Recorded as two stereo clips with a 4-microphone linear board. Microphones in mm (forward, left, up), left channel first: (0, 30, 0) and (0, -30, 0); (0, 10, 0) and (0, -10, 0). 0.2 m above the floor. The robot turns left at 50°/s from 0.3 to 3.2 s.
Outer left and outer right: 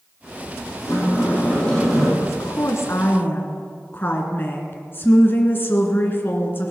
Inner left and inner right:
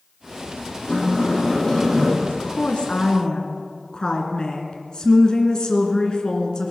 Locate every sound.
0.8 s a sliding door: 60° left, 7.5 m; by 2.1 s 5° right, 7.5 m
2.2 s a woman speaking: 90° left, 2.5 m; by 6.7 s 40° left, 2.5 m